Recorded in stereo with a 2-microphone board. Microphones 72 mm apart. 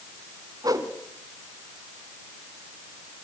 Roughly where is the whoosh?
Right.